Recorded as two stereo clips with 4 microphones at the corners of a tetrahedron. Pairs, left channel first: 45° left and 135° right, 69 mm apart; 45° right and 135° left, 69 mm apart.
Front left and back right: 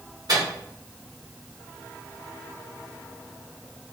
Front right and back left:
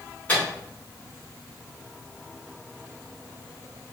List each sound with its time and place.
0.3 s a microwave: 115° right, 2.0 m